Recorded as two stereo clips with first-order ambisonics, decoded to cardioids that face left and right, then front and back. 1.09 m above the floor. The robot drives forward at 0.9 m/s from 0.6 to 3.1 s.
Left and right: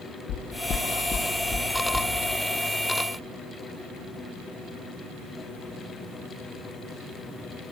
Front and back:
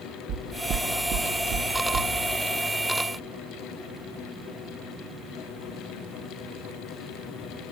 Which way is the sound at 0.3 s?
130° left.